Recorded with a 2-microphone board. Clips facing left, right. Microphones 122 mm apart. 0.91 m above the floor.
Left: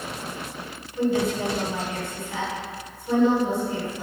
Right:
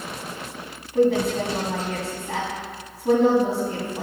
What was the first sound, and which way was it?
A woman speaking, 80° right.